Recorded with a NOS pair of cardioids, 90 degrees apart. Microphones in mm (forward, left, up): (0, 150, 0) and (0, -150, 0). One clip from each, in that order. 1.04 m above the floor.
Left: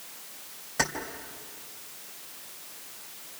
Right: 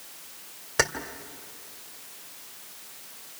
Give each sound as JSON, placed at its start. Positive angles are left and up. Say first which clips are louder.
{"t": 0.8, "sound": "keys jangling", "louder": "right 4 dB", "azimuth_deg": -60, "distance_m": 2.5}